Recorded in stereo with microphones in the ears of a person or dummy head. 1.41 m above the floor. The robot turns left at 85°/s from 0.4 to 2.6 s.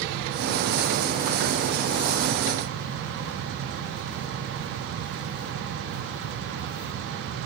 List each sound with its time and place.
Only background noise.